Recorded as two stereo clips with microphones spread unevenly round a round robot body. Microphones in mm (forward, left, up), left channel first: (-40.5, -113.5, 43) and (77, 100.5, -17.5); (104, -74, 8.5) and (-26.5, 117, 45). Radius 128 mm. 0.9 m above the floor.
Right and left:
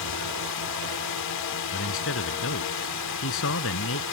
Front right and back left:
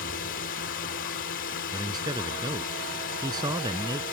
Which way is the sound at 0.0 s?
105° right.